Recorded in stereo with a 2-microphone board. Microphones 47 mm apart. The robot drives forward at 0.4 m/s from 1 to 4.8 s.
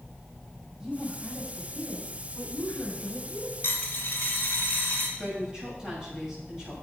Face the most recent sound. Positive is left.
turn(degrees=-15)  # may be behind; listen again after turning